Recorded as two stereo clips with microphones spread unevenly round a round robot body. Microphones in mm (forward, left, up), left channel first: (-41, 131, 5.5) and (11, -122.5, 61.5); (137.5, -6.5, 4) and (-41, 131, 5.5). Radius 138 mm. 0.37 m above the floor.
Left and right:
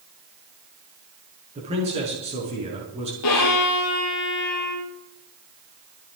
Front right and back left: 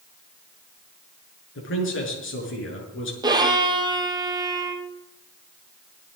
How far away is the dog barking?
I don't hear a dog barking.